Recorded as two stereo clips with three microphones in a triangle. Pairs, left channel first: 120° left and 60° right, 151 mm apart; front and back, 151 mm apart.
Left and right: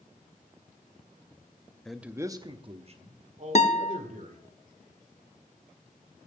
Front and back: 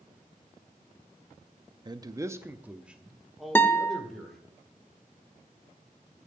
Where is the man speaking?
160° right, 0.6 m; by 4.5 s 85° right, 2 m.